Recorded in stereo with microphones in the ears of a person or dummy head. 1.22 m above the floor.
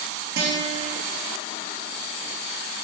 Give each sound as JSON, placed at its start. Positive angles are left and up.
{"t": 0.4, "sound": "a guitar", "side_deg": -50, "distance_m": 2.5}